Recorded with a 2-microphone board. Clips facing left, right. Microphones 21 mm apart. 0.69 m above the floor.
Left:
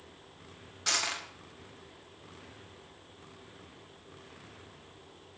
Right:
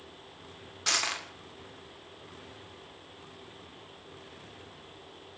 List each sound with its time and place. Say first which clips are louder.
0.9 s crushing: right 2 dB; 15° right (ahead or behind), 1.7 m